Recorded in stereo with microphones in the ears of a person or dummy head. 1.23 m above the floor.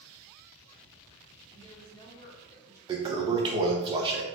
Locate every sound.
1.5 s a woman speaking: 20° left (ahead or behind), 1.3 m
2.9 s a toilet flushing: 25° right (ahead or behind), 0.7 m